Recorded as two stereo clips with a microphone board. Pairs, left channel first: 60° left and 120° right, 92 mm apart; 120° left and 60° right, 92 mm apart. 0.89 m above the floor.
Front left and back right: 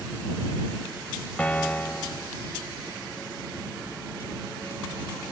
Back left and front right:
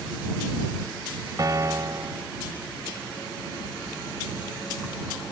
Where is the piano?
15° right.